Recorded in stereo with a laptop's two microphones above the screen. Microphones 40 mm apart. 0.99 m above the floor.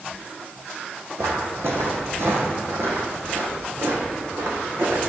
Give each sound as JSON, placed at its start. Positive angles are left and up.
{"t": 1.2, "sound": "footsteps", "side_deg": -70, "distance_m": 3.0}